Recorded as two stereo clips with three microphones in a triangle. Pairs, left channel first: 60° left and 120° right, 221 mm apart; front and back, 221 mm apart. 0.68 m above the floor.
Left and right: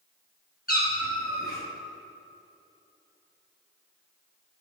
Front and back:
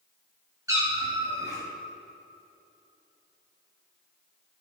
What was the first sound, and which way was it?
A cat meowing, 105° left.